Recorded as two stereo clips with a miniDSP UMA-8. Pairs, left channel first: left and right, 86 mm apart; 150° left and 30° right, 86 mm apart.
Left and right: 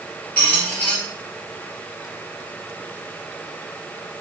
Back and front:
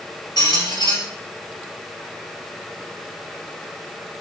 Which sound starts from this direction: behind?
A squeak, at 0.4 s.